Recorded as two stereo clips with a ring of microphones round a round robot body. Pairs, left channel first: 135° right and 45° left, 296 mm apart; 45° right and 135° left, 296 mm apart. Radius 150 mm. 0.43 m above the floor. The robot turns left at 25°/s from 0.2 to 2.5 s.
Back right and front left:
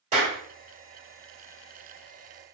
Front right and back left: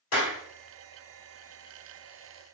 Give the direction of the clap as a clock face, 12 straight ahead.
1 o'clock.